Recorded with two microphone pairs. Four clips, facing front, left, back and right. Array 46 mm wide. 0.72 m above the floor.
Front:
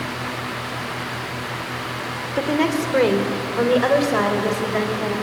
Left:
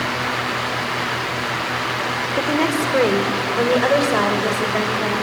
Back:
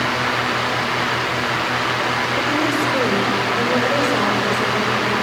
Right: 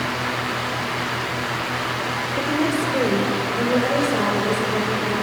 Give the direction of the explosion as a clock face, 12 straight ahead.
No explosion in this recording.